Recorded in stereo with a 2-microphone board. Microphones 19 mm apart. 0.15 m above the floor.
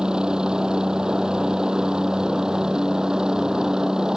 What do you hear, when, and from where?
0.0 s a helicopter: 45° right (ahead or behind); by 4.2 s 40° right (ahead or behind)